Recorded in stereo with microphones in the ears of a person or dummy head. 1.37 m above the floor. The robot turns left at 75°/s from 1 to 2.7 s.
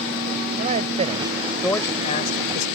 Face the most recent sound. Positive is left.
turn(degrees=95)